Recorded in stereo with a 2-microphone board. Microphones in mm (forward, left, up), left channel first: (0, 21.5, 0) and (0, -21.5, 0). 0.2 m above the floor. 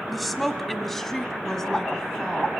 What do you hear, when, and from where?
0.1 s a woman speaking: centre (ahead or behind), 1.2 m; by 2.5 s 15° left (ahead or behind), 2 m